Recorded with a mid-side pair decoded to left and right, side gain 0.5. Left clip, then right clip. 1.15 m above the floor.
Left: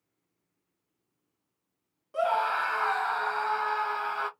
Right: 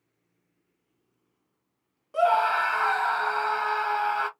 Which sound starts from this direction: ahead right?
A scream, at 2.1 s.